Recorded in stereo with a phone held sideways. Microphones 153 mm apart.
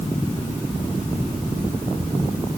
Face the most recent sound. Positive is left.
No sound to turn to.